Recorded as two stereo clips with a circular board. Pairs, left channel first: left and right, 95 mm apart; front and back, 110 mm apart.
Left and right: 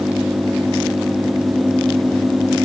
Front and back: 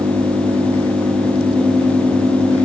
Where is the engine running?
160° right.